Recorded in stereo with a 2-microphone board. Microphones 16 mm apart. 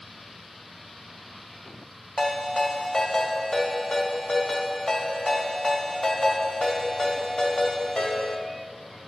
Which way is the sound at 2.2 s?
65° left (ahead or behind).